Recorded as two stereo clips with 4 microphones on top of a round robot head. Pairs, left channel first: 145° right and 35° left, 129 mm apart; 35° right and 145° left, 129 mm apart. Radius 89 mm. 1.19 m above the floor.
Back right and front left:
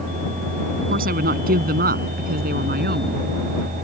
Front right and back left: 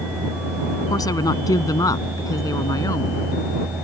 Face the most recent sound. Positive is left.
turn(degrees=30)